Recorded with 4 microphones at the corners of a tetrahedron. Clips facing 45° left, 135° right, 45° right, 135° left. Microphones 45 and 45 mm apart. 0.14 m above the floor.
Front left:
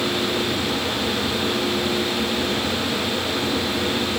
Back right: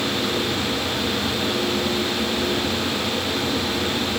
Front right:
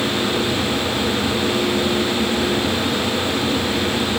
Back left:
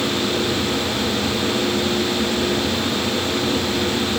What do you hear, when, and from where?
Only background noise.